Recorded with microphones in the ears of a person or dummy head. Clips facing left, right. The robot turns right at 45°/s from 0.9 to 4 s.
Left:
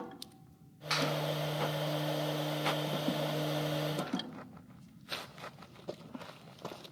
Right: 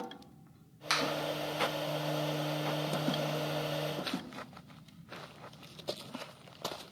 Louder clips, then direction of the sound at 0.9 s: Even; 55° right (ahead or behind).